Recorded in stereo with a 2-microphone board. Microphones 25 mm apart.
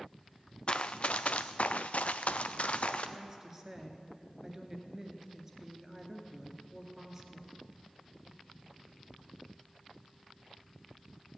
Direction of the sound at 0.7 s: 45° left (ahead or behind).